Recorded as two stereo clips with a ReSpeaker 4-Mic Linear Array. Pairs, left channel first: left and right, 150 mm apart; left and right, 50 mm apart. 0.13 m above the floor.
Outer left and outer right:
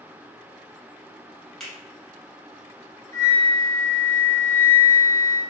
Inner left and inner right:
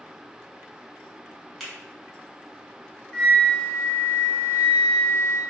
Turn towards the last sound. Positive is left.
turn(degrees=20)  # may be behind; listen again after turning